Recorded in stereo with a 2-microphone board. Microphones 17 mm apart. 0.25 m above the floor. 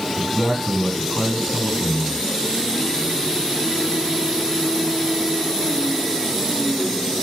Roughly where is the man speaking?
Centre.